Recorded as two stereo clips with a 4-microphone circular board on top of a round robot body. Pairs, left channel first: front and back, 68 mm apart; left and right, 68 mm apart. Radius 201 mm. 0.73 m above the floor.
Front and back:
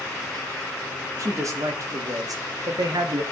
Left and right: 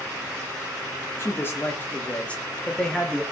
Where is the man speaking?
140° left, 2 m; by 3.2 s straight behind, 2 m.